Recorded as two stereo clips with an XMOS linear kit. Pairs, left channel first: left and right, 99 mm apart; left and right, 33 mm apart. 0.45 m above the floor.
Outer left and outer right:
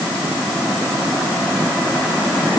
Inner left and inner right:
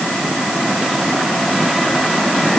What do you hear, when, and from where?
Only background noise.